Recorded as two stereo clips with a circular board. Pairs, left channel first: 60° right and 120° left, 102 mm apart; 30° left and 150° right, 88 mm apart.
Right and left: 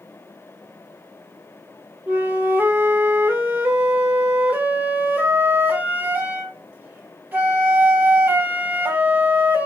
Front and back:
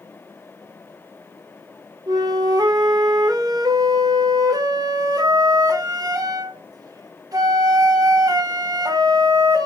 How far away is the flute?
About 0.7 m.